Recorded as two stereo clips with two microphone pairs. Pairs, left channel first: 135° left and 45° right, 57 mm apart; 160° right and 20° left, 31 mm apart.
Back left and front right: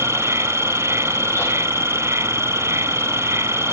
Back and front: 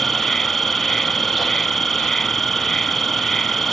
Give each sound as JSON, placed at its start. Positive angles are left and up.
{"t": 0.0, "sound": "an insect", "azimuth_deg": -80}